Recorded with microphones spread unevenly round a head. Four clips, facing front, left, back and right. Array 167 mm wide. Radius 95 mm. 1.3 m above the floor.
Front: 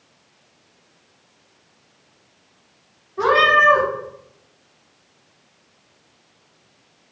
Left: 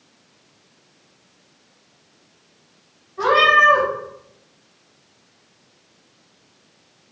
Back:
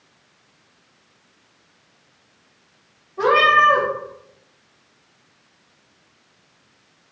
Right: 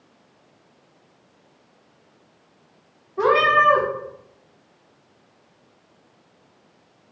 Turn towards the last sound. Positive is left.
turn(degrees=-80)